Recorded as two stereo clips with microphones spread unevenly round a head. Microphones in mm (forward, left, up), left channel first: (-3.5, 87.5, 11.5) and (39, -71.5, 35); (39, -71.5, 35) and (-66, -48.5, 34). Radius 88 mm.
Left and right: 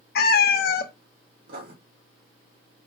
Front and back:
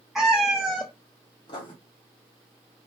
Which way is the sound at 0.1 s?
80° left.